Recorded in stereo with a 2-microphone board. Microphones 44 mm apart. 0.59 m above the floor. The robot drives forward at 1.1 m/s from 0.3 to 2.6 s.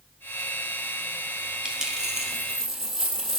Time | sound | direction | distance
1.6 | a dropped coin | 15° right (ahead or behind) | 2 m